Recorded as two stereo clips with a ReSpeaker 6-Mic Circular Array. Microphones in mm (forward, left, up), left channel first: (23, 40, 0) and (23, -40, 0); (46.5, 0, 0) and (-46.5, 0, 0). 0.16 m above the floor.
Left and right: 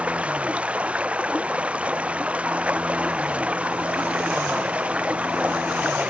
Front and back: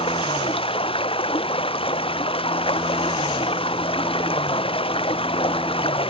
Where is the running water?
15° right.